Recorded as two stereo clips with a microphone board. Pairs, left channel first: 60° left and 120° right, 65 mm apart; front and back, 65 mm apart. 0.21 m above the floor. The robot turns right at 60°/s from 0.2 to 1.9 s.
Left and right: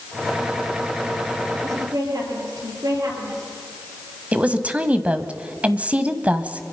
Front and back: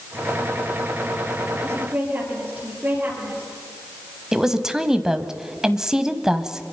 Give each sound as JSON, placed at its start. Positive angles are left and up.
{"t": 1.6, "sound": "a woman speaking", "azimuth_deg": -140, "distance_m": 6.0}
{"t": 4.3, "sound": "a woman speaking", "azimuth_deg": -115, "distance_m": 1.2}